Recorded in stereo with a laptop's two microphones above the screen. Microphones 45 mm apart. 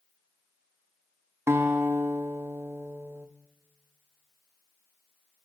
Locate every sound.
1.5 s a guitar: 65° right (ahead or behind), 0.8 m